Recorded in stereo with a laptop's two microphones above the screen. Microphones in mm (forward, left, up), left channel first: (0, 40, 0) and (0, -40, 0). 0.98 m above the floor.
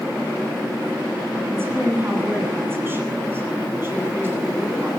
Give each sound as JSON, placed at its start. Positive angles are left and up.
{"t": 1.5, "sound": "a woman speaking", "side_deg": -30, "distance_m": 9.0}